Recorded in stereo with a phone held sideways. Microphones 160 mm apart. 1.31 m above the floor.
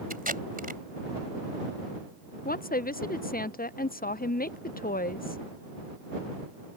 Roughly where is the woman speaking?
Left.